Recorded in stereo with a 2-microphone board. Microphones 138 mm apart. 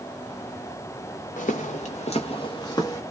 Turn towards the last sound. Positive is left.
turn(degrees=25)  # may be behind; listen again after turning